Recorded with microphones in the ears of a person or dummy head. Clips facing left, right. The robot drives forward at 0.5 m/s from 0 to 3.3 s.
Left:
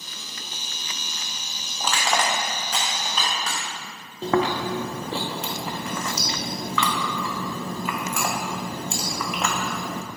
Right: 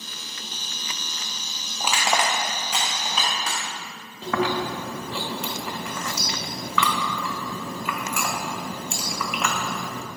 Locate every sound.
1.8 s crushing: 10° right (ahead or behind), 0.6 m; by 3.6 s 5° right (ahead or behind), 1.3 m
4.2 s chewing: 35° left (ahead or behind), 0.5 m